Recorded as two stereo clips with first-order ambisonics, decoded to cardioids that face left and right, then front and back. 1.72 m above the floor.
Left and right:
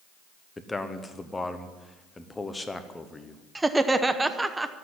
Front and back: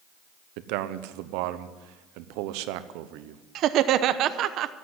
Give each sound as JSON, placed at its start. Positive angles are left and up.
{"t": 0.6, "sound": "a man speaking", "azimuth_deg": 170, "distance_m": 0.9}
{"t": 3.5, "sound": "laughter", "azimuth_deg": -170, "distance_m": 0.7}